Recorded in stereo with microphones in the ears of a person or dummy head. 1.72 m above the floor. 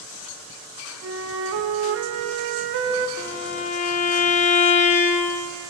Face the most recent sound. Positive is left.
turn(degrees=40)  # may be behind; listen again after turning